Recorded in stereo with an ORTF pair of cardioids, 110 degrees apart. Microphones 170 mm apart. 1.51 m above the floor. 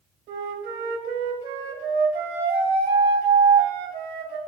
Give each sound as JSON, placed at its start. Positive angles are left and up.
{"t": 0.3, "sound": "a flute", "azimuth_deg": -70, "distance_m": 1.7}